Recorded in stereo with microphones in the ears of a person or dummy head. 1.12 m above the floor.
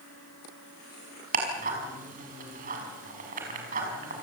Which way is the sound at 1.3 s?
45° right (ahead or behind).